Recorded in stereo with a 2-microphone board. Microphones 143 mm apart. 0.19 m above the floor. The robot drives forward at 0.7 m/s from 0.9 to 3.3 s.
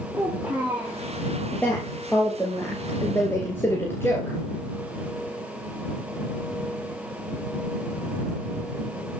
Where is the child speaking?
15° right (ahead or behind), 6.5 m.